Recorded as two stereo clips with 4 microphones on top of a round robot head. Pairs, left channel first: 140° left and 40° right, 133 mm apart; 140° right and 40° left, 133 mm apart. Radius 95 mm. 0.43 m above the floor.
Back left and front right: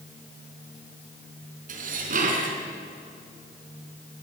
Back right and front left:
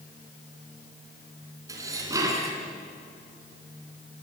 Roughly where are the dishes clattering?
Ahead right.